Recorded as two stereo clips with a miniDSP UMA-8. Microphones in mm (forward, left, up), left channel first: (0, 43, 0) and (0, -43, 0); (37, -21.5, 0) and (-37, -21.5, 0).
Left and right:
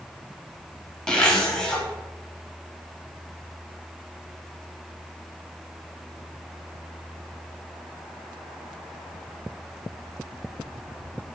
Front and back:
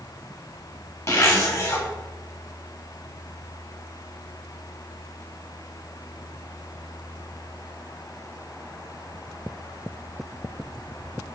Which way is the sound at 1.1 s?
10° left.